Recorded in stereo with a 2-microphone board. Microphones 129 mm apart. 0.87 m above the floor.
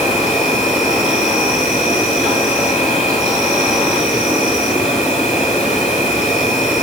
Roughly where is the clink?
No clink in this recording.